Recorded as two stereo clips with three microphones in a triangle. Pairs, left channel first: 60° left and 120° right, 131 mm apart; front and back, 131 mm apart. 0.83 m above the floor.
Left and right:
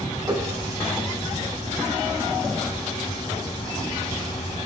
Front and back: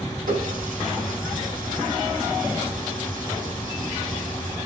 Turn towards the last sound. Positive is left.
turn(degrees=175)